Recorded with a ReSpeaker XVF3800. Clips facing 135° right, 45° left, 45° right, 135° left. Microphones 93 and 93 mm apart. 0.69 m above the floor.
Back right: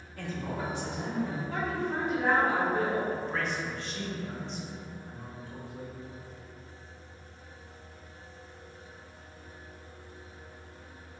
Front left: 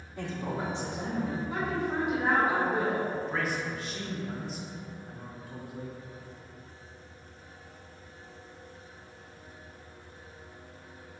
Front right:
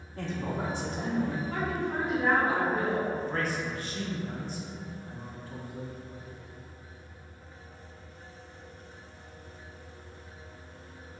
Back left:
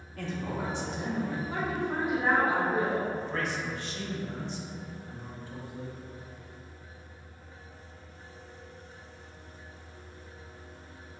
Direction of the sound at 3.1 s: 40° right.